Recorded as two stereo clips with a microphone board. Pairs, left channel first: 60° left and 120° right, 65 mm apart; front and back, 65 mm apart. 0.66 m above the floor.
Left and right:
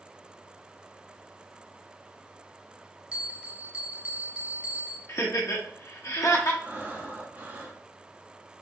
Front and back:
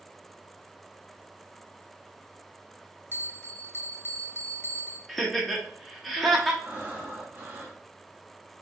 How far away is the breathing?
About 0.8 m.